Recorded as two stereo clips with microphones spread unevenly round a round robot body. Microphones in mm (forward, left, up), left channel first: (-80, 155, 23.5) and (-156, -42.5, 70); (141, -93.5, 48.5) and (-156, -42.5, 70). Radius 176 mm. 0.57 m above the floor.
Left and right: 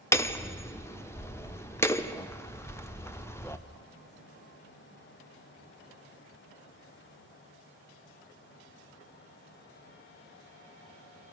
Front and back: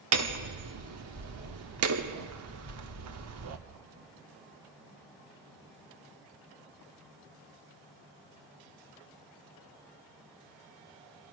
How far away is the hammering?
About 1.3 m.